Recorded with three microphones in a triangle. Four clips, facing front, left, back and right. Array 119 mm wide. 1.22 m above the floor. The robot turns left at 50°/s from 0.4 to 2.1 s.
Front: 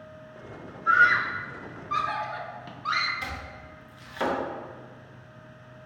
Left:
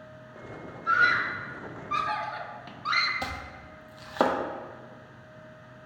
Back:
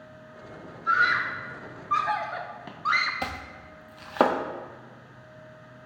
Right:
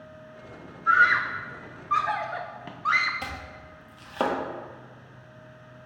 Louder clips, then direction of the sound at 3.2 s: Left 1 dB, back 3 dB; 170° left.